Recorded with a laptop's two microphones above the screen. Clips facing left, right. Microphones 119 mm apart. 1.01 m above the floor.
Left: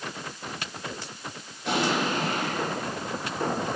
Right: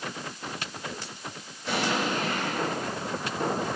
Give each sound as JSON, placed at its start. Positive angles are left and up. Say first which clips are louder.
{"t": 1.7, "sound": "an explosion", "louder": "left 2 dB", "side_deg": 80, "distance_m": 6.5}